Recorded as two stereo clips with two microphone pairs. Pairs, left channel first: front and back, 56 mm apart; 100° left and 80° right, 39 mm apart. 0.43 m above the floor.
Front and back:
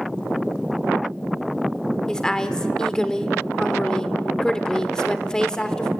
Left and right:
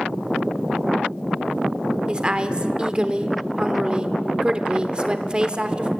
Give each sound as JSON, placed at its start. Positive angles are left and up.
{"t": 2.1, "sound": "a woman speaking", "azimuth_deg": -55, "distance_m": 1.0}